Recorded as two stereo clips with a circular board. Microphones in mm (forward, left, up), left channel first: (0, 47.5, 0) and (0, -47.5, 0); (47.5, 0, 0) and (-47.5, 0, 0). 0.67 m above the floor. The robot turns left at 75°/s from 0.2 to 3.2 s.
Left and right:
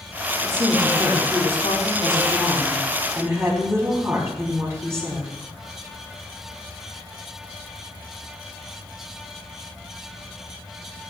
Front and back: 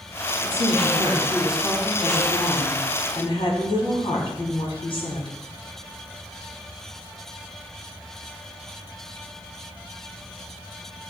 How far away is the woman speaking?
About 5.5 m.